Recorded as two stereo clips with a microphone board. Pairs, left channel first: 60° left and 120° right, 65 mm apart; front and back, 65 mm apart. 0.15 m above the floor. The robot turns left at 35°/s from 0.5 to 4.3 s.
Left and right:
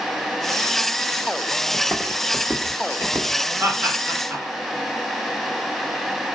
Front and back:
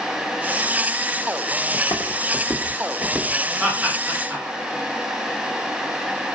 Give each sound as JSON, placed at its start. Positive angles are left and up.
{"t": 1.7, "sound": "footsteps", "azimuth_deg": 0, "distance_m": 1.1}
{"t": 3.6, "sound": "laughter", "azimuth_deg": -120, "distance_m": 1.7}